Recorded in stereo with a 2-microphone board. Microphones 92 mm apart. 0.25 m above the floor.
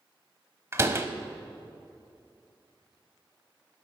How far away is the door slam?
About 0.8 m.